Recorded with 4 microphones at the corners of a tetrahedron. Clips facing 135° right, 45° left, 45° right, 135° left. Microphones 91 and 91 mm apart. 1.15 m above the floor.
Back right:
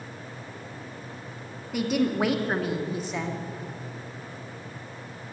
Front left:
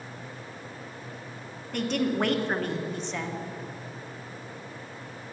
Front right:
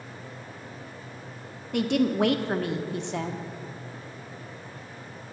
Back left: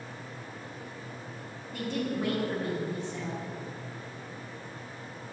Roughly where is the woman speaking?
Ahead right.